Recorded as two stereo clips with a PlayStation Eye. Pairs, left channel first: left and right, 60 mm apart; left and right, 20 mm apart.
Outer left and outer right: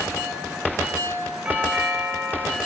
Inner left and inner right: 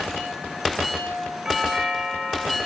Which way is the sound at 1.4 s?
15° right (ahead or behind).